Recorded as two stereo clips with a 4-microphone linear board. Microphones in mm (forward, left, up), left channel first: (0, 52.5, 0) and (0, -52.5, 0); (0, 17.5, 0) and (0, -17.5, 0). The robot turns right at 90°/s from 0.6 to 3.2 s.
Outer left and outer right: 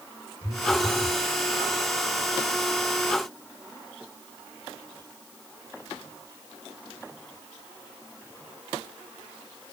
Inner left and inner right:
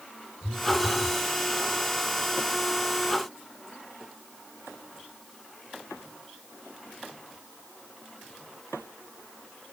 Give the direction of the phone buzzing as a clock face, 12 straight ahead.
7 o'clock.